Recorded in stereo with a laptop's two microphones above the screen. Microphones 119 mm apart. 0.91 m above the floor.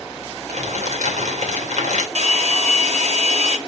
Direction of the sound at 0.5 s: 80° right.